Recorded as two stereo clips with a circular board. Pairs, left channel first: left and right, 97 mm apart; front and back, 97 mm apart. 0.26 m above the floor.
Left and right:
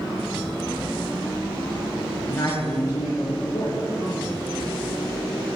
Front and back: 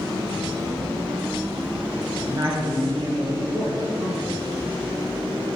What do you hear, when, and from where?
2.3 s a man speaking: 140° left, 4 m